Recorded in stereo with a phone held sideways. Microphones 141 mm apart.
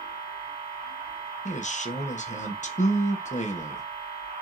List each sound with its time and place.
0.0 s a machine running: 55° right (ahead or behind), 1.3 m
1.4 s a man speaking: 60° left (ahead or behind), 0.6 m